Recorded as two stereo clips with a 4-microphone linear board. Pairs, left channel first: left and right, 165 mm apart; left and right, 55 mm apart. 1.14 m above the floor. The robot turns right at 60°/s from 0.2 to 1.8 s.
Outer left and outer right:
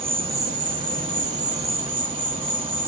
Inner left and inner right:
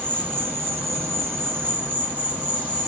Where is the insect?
135° right, 0.8 m; by 2.9 s 40° right, 0.8 m.